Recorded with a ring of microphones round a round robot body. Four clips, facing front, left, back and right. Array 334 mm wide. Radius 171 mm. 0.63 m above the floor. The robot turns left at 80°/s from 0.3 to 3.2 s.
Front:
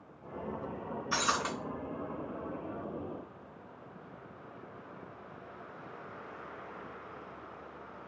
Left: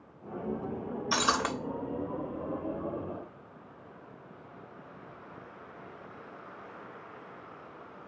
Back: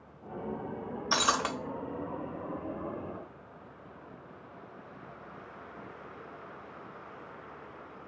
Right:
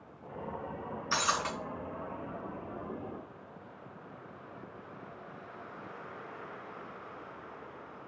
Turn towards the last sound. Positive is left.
turn(degrees=-10)